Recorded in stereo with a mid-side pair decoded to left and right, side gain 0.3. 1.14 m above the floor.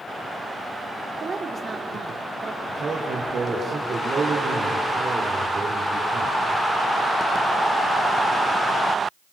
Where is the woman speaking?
50° right, 4 m.